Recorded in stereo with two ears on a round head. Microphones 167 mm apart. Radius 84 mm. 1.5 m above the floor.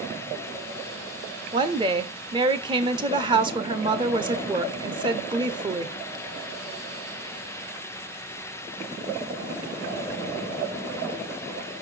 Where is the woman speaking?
25° right (ahead or behind), 0.6 m.